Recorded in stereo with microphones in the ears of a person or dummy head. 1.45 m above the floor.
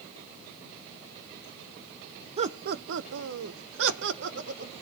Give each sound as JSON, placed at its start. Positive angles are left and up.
{"t": 2.4, "sound": "laughter", "side_deg": -35, "distance_m": 0.6}